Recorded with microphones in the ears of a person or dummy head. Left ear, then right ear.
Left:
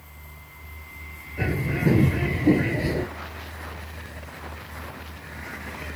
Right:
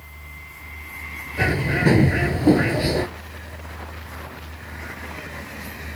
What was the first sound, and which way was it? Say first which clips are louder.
A bird: right 6 dB; 35° right (ahead or behind).